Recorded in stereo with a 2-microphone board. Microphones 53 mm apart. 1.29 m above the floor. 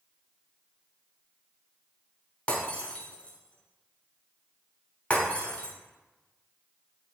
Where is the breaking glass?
25° left (ahead or behind), 3.5 m.